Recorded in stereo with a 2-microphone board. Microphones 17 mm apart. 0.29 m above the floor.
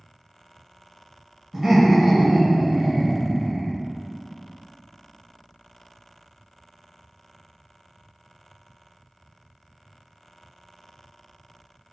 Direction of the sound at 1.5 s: 25° right (ahead or behind).